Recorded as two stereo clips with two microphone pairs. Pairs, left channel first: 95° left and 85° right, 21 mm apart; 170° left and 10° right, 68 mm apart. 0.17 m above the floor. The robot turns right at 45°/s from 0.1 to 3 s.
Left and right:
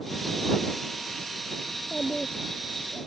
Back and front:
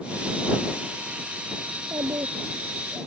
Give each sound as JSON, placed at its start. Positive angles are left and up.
{"t": 1.7, "sound": "a child speaking", "azimuth_deg": -25}